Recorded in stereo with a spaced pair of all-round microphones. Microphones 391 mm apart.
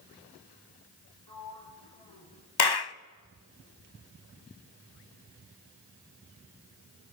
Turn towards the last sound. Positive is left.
turn(degrees=75)  # may be behind; listen again after turning